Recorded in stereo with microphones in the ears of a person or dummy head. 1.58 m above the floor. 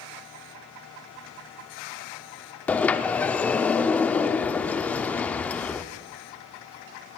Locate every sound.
2.7 s a sliding door: 10° left (ahead or behind), 0.5 m